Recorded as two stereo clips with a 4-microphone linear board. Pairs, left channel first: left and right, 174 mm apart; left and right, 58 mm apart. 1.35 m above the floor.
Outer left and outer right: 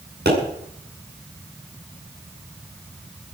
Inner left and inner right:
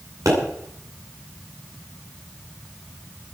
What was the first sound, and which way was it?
A pop, 70° right (ahead or behind).